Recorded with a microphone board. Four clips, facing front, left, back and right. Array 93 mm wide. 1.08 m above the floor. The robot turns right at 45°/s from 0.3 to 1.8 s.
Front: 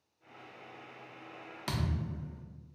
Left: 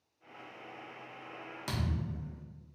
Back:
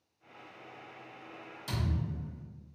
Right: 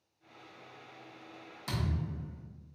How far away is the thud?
About 1.0 m.